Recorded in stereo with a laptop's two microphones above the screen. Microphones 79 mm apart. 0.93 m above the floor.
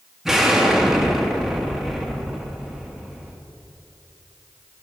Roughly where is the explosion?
Centre.